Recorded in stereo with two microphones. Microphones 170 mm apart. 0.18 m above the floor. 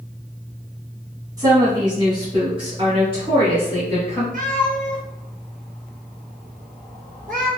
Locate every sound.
1.4 s a woman speaking: 25° right (ahead or behind), 1.0 m; by 4.2 s 35° right (ahead or behind), 2.0 m
4.3 s a cat meowing: 55° right (ahead or behind), 1.6 m